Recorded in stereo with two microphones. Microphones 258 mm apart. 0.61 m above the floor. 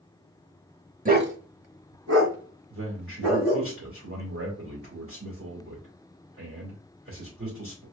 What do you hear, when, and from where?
1.1 s a dog barking: 30° right (ahead or behind), 0.8 m; by 3.7 s 70° right (ahead or behind), 3 m
2.7 s a man speaking: 55° right (ahead or behind), 2.5 m